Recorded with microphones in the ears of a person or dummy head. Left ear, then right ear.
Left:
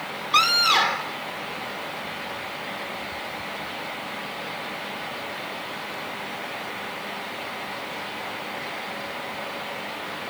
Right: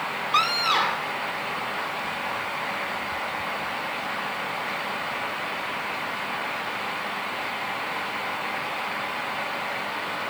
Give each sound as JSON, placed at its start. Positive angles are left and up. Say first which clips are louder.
{"t": 0.3, "sound": "a scream", "louder": "left 4 dB", "side_deg": 15}